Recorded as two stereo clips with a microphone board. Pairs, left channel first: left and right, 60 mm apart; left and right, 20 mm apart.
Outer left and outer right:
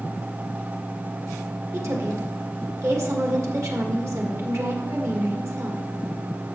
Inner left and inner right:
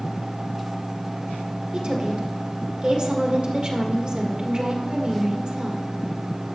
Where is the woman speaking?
55° right (ahead or behind), 1.6 m.